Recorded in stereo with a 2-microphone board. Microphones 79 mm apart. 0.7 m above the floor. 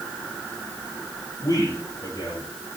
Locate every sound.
1.4 s a man speaking: 55° left (ahead or behind), 6 m